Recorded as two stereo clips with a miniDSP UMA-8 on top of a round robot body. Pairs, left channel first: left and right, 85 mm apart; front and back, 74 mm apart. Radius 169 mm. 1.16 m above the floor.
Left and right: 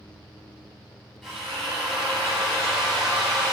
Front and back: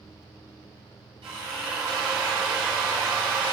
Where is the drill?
Straight behind, 5.5 m.